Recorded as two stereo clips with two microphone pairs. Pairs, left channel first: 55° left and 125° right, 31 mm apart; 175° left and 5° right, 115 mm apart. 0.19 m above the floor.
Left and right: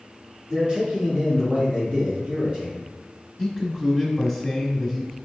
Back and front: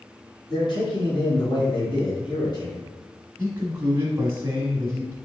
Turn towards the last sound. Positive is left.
turn(degrees=20)